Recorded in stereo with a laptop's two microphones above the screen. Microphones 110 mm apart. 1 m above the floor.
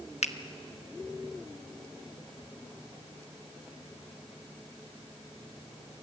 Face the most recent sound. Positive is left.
turn(degrees=75)  # may be behind; listen again after turning